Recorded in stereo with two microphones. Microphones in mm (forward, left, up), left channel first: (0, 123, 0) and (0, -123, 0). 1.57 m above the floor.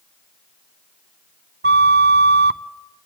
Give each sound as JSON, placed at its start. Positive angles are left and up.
{"t": 1.6, "sound": "a flute", "side_deg": -45, "distance_m": 0.5}